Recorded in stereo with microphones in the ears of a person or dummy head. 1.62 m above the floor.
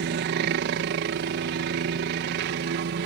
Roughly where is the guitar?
No guitar in this recording.